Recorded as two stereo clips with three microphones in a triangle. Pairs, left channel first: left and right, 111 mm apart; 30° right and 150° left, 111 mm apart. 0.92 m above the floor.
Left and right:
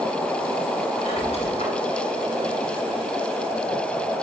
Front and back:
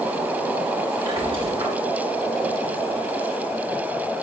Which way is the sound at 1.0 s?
110° left.